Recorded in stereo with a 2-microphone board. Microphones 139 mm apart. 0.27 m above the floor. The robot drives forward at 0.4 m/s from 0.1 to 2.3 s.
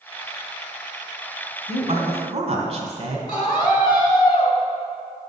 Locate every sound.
1.7 s a woman speaking: 45° right (ahead or behind), 1.9 m
3.3 s a scream: 35° left (ahead or behind), 3 m